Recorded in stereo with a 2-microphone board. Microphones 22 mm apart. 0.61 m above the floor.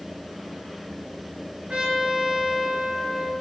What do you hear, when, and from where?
1.7 s a trumpet: 65° right (ahead or behind), 1.1 m